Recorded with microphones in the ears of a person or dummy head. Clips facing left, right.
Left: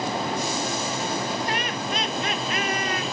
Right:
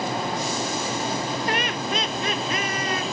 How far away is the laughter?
About 0.8 m.